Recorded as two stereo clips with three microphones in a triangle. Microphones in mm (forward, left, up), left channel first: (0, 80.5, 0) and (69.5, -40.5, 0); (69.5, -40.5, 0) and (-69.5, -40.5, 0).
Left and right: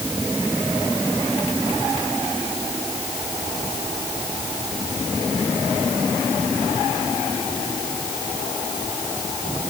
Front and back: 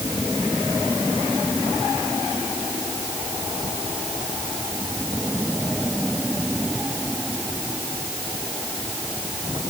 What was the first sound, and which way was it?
Only background noise.